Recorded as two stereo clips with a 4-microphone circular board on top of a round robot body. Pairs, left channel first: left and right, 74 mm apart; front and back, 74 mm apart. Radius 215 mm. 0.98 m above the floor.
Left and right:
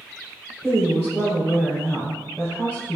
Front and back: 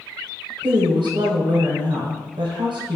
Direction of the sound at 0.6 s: 175° left.